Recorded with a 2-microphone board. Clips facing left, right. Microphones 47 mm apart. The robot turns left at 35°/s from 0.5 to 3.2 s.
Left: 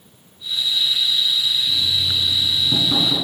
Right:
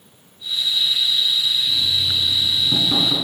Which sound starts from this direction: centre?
Knocking, at 1.7 s.